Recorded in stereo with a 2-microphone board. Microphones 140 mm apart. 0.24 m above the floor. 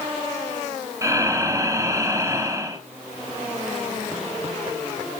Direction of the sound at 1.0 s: 20° right (ahead or behind).